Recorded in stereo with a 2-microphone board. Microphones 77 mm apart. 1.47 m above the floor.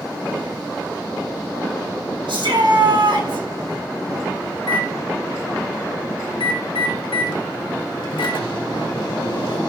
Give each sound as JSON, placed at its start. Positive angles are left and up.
{"t": 2.3, "sound": "a shout", "side_deg": -80, "distance_m": 6.0}
{"t": 4.6, "sound": "a microwave", "side_deg": 85, "distance_m": 1.7}